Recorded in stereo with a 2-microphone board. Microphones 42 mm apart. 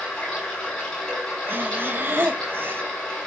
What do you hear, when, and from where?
0.0 s running water: 25° left (ahead or behind), 10 m
1.5 s breathing: 60° right (ahead or behind), 1.4 m